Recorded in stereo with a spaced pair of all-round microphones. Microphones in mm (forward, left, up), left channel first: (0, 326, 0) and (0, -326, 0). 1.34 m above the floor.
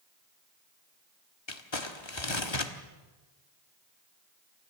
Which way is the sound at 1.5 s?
45° left (ahead or behind).